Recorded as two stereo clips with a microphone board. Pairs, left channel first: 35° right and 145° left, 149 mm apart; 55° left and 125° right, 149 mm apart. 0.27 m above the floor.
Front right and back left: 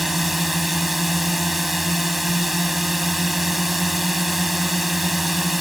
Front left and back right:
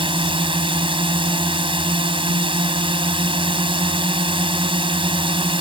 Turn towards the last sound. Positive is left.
turn(degrees=-125)